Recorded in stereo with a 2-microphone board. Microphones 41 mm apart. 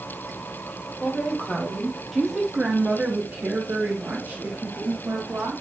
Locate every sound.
1.0 s a woman speaking: 35° left (ahead or behind), 1.1 m; by 5.6 s 75° right (ahead or behind), 1.9 m